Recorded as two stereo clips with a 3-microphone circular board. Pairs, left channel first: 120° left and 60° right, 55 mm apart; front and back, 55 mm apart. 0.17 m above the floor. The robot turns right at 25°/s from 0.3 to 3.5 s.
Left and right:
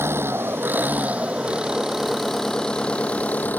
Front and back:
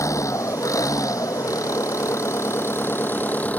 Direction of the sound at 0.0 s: 20° right.